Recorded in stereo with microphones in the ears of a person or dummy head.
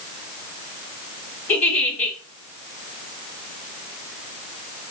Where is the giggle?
10° left (ahead or behind), 1.8 m.